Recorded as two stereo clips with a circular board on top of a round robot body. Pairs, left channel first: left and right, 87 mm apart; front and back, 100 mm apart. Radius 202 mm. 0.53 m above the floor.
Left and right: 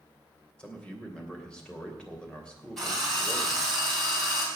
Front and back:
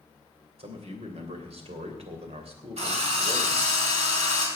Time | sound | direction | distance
0.6 | a man speaking | 170° left | 3 m
2.8 | a drill | straight behind | 4 m